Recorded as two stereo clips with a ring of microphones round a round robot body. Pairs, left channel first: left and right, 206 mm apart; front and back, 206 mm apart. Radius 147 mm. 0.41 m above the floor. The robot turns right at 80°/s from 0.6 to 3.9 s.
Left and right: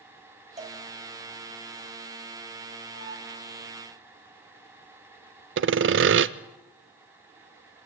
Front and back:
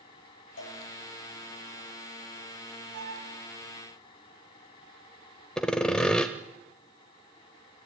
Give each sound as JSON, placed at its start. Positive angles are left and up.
{"t": 0.6, "sound": "a cowbell", "azimuth_deg": -35, "distance_m": 3.5}
{"t": 2.9, "sound": "a violin", "azimuth_deg": 160, "distance_m": 9.0}
{"t": 5.6, "sound": "sawing", "azimuth_deg": -85, "distance_m": 0.7}